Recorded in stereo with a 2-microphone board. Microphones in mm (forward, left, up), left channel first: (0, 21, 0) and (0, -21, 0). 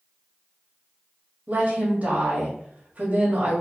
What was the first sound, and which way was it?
A woman speaking, 35° right (ahead or behind).